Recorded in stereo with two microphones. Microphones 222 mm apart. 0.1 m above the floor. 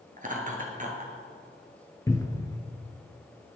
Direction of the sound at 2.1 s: 15° left (ahead or behind).